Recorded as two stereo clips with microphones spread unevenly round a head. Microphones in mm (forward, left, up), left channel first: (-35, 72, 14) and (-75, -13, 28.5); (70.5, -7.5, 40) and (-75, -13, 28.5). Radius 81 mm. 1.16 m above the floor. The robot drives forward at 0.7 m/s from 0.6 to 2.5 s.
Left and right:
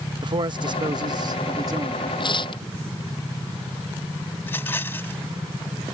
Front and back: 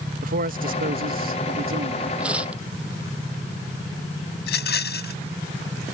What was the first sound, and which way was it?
A man speaking, 155° right.